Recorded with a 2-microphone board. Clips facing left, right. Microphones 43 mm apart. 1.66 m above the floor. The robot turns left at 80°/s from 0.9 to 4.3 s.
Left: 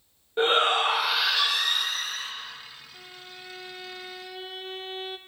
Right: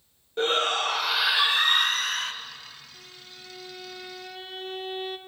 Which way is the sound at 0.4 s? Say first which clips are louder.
Left 3 dB; 20° left.